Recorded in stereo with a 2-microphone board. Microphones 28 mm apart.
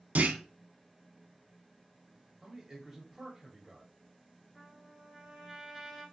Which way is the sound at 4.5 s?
10° right (ahead or behind).